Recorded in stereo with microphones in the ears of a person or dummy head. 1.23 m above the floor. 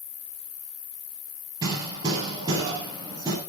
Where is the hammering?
20° right (ahead or behind), 7 m.